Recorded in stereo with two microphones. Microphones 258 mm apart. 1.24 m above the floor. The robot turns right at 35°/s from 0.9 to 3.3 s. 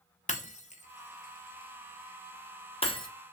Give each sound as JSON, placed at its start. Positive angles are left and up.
{"t": 0.3, "sound": "breaking glass", "side_deg": 30, "distance_m": 0.7}